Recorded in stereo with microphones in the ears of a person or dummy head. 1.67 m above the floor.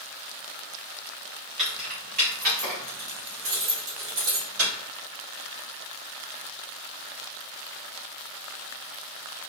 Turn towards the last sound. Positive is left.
turn(degrees=-75)  # may be behind; listen again after turning